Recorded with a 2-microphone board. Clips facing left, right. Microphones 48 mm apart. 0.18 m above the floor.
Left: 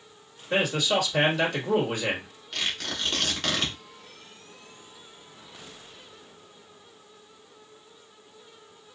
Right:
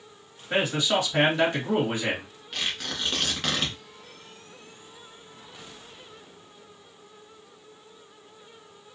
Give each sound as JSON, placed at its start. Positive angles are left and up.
{"t": 0.5, "sound": "a man speaking", "side_deg": -25, "distance_m": 2.0}
{"t": 2.5, "sound": "tearing paper", "side_deg": -5, "distance_m": 1.3}